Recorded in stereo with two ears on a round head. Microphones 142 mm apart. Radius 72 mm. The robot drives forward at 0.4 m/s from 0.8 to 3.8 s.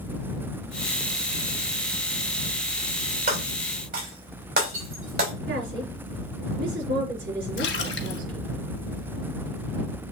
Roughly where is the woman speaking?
Right.